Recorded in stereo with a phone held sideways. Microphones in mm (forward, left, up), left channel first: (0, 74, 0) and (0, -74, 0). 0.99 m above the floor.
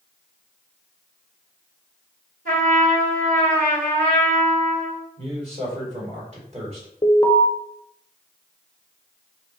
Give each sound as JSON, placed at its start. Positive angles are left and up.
{"t": 2.5, "sound": "a trumpet", "side_deg": -80, "distance_m": 2.5}
{"t": 5.2, "sound": "a man speaking", "side_deg": -45, "distance_m": 2.5}
{"t": 7.0, "sound": "an alarm", "side_deg": 35, "distance_m": 0.7}